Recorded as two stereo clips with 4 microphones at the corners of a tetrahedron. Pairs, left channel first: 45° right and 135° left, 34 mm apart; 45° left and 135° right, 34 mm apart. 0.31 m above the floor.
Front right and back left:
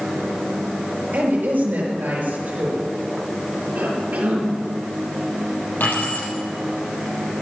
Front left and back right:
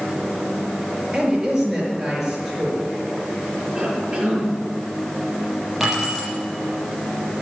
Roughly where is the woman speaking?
Behind left.